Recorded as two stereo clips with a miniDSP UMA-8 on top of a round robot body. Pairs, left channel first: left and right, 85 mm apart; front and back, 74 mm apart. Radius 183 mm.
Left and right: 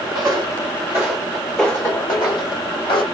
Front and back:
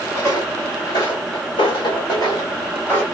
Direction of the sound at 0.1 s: 45° right.